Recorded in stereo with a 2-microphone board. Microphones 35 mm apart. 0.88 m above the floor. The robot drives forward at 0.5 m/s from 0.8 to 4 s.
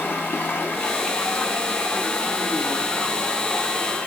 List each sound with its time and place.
0.0 s running water: 85° left, 1.6 m; by 4.1 s 45° left (ahead or behind), 2 m